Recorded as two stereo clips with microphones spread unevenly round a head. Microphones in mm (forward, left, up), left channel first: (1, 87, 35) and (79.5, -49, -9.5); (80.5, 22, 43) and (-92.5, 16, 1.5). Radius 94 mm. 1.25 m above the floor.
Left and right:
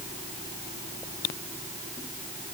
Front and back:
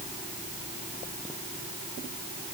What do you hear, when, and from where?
Only background noise.